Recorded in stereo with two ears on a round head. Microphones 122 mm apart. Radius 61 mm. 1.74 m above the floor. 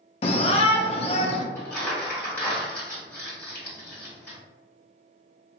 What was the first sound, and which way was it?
A shout, 45° left (ahead or behind).